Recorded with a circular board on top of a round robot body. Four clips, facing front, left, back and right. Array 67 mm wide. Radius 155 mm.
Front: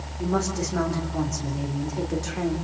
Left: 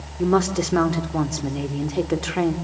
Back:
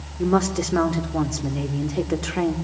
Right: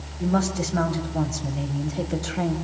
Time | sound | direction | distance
0.2 | a woman speaking | 120° left | 3 m